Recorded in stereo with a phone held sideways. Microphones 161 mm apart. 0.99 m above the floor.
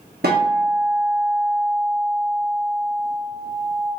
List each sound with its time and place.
0.2 s a guitar: 85° right, 1.0 m